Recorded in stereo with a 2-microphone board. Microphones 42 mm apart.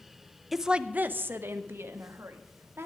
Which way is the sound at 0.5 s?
5° right (ahead or behind).